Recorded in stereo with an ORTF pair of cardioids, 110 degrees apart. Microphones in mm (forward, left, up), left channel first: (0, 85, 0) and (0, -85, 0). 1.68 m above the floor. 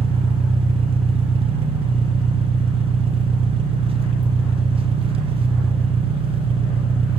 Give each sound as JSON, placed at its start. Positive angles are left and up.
{"t": 0.0, "sound": "an engine running", "azimuth_deg": -35, "distance_m": 0.9}